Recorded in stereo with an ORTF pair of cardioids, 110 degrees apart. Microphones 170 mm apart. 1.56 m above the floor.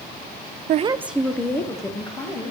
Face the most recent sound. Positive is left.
turn(degrees=25)